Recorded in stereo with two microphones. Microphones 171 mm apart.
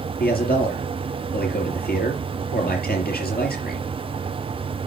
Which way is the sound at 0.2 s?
80° left.